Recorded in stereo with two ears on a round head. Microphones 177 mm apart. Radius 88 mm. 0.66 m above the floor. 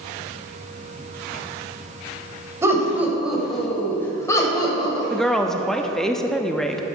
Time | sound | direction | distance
2.6 | laughter | 15° right (ahead or behind) | 2.5 m
5.1 | a woman speaking | 5° left (ahead or behind) | 0.6 m